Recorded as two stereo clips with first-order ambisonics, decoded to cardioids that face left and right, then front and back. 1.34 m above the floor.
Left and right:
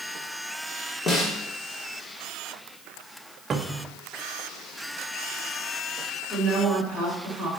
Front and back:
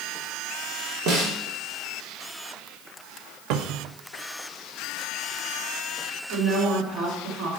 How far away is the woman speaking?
About 3.5 m.